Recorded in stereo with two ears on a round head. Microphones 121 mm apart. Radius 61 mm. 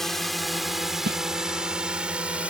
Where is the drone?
Centre (ahead or behind); by 2.5 s 10° right (ahead or behind).